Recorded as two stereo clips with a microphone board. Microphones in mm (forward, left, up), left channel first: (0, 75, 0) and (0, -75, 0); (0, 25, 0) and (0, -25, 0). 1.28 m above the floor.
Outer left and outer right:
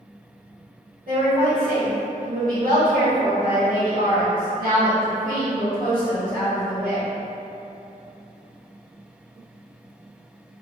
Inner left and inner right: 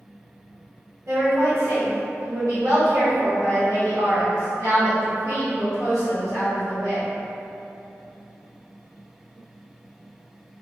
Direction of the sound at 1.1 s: 75° right (ahead or behind).